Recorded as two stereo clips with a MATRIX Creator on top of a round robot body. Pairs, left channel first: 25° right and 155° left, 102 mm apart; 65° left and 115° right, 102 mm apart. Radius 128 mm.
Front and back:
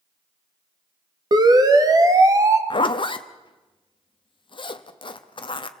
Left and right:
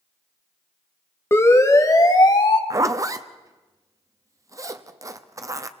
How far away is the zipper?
About 1.2 m.